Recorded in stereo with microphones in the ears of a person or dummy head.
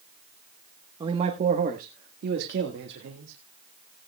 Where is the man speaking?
30° right (ahead or behind), 1.2 m; by 3.3 s 75° right (ahead or behind), 2.0 m.